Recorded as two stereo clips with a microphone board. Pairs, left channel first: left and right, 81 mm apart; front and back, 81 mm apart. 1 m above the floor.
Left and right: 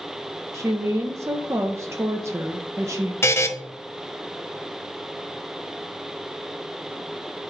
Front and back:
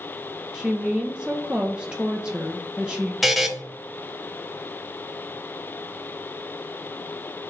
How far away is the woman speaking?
About 0.7 m.